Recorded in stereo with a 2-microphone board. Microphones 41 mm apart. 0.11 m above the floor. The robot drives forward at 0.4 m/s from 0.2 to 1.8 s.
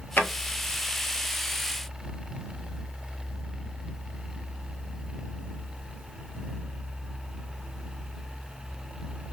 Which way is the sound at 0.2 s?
55° left (ahead or behind).